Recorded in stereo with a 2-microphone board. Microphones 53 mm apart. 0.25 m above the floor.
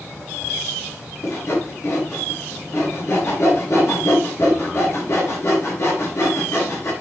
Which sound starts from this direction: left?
Sawing, at 1.2 s.